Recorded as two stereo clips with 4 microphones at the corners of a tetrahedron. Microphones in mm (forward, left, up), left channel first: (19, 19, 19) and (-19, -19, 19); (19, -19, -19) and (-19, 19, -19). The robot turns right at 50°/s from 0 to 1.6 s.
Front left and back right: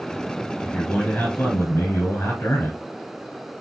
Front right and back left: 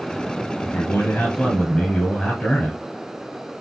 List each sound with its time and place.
0.6 s a man speaking: 25° right, 2 m; by 2.8 s 25° left, 2 m